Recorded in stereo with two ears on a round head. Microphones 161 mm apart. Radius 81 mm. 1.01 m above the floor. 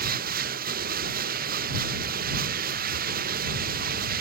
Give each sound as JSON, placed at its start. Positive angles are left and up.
{"t": 0.0, "sound": "running water", "side_deg": -55}